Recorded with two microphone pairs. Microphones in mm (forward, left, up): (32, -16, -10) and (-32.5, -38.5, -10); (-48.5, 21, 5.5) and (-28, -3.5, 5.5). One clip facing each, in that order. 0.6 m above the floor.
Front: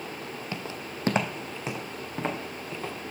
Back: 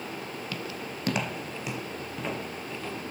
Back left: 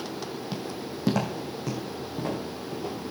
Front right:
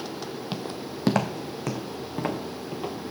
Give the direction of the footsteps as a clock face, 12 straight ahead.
1 o'clock.